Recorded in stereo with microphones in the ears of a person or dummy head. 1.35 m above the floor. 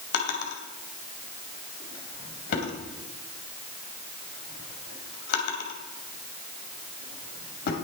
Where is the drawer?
65° left (ahead or behind), 2.5 m.